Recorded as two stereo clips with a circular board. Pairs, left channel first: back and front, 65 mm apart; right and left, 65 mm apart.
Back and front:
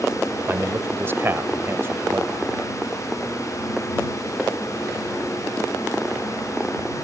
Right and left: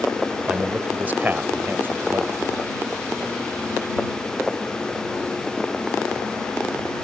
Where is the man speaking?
30° left; by 2.5 s 45° left.